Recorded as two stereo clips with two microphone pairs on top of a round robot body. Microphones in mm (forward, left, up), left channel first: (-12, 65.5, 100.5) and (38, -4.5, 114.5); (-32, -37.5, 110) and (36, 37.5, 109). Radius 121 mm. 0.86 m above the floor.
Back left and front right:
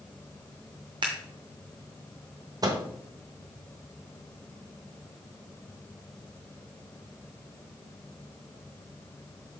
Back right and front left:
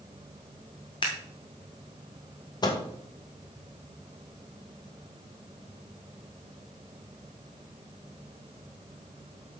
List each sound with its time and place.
1.0 s scissors: 95° right, 0.6 m
2.6 s a microwave: 95° right, 1.2 m